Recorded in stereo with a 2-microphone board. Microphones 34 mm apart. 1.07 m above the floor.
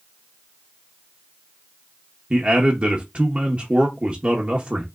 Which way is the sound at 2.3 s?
40° right (ahead or behind).